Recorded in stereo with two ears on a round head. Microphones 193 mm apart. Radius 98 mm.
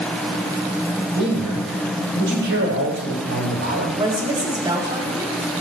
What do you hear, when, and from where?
1.1 s a man speaking: 55° right (ahead or behind), 9.5 m
4.0 s a woman speaking: 20° right (ahead or behind), 6 m